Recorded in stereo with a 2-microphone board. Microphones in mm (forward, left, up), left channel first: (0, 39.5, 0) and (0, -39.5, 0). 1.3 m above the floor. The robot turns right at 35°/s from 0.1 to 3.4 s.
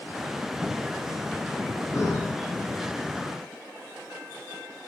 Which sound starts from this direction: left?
Breathing, at 1.9 s.